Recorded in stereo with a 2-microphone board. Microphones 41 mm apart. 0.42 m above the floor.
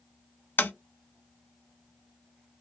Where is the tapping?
55° left (ahead or behind), 0.7 m.